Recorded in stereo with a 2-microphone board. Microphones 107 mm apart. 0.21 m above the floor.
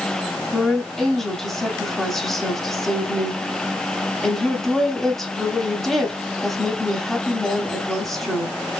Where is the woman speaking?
Centre (ahead or behind), 1.4 m.